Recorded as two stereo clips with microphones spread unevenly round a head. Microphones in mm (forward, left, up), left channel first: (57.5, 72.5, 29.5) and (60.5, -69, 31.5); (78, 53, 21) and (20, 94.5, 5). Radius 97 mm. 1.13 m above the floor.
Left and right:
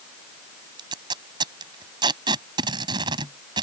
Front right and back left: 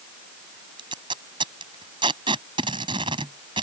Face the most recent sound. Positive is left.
turn(degrees=-155)